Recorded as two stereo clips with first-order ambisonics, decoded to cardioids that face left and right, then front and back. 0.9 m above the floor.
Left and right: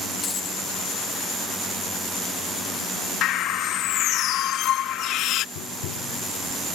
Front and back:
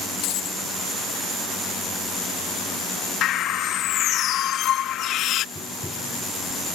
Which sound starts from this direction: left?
Tapping, at 5.5 s.